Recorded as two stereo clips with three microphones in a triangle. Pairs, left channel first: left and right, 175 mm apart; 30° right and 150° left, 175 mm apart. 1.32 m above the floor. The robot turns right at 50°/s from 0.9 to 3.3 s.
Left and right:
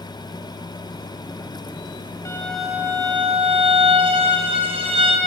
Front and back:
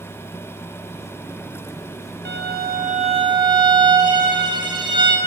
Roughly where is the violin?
Behind.